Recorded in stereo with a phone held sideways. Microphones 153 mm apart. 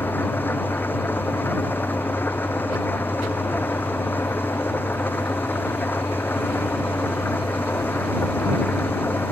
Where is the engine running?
15° left (ahead or behind).